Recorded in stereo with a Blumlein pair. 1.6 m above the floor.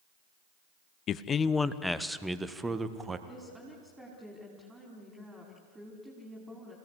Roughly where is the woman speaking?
Ahead.